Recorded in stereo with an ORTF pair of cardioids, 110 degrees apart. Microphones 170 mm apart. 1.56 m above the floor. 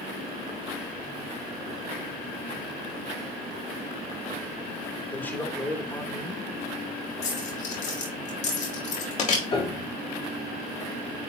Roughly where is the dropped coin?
Ahead left.